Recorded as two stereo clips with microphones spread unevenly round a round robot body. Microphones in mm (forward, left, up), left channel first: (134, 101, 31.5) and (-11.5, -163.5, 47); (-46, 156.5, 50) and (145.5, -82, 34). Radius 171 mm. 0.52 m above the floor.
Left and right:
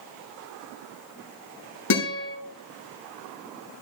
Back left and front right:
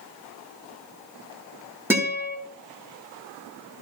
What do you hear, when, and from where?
1.9 s a guitar: 30° left, 7.5 m